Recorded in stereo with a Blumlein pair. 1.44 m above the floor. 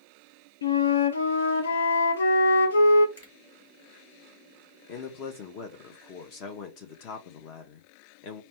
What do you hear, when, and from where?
0.6 s a flute: 65° left, 0.6 m
3.2 s a finger snap: 65° left, 2 m
4.9 s a man speaking: 40° left, 0.9 m